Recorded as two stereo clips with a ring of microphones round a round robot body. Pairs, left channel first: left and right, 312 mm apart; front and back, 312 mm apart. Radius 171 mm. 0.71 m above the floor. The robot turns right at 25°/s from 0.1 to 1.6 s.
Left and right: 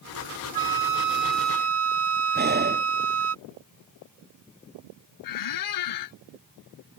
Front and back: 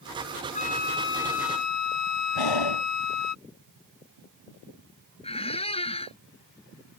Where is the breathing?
30° right.